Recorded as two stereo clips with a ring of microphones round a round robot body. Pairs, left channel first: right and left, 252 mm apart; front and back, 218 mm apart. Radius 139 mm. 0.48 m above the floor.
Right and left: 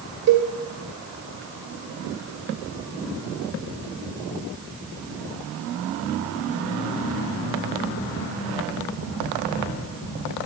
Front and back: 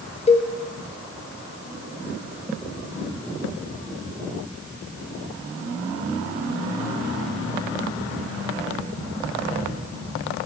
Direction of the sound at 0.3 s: 60° left.